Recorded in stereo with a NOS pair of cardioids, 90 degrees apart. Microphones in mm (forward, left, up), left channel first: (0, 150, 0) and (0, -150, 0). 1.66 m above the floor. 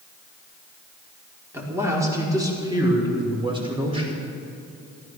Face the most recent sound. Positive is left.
turn(degrees=-15)